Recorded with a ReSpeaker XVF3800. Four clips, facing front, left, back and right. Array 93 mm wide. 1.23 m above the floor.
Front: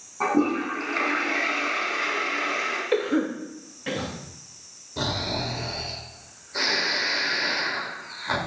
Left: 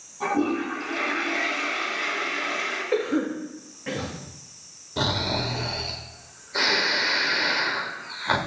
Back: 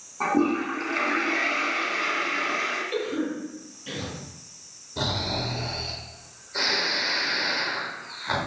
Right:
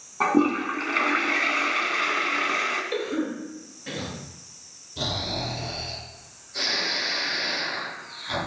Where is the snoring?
85° left, 1.5 m.